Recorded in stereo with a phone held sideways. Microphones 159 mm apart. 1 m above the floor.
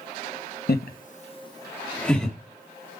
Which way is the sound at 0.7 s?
80° left.